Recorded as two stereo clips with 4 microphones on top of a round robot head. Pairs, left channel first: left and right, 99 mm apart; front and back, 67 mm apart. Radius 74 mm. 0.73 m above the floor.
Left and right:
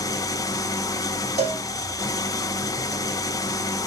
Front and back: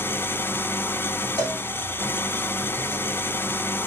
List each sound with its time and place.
0.0 s an engine running: 45° left, 0.9 m
1.4 s a cowbell: 120° right, 5 m